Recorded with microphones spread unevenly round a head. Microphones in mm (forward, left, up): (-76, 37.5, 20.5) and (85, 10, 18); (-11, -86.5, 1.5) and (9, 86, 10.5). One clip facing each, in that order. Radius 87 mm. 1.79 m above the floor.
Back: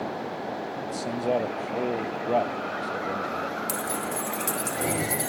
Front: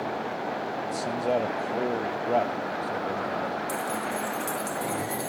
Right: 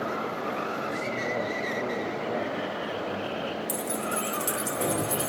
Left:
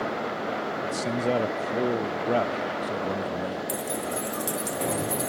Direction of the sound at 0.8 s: 80° left.